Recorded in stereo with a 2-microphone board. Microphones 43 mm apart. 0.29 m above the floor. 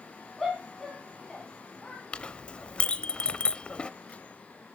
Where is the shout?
5° left (ahead or behind), 3 m; by 2.0 s 20° left (ahead or behind), 3 m.